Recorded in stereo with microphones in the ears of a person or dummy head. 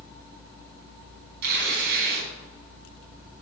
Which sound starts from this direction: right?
Tearing paper, at 1.4 s.